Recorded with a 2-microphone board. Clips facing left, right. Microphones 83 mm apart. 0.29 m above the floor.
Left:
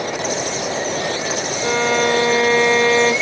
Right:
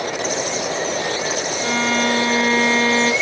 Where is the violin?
25° left (ahead or behind), 1.1 m.